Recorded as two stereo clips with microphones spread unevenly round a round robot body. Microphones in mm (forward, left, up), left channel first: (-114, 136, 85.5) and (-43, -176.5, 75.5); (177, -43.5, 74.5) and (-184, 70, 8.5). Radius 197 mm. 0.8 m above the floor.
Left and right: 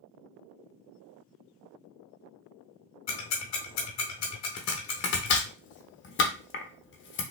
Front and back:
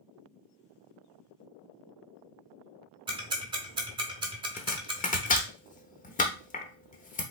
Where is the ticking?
80° left, 0.6 m.